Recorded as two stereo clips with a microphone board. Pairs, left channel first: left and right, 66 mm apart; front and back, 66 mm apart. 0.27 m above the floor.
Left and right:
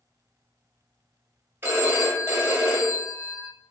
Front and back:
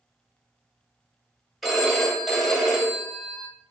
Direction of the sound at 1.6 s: 90° right.